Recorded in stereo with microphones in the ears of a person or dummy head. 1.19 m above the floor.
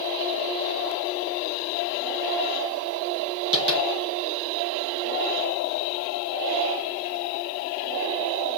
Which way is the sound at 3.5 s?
45° right (ahead or behind).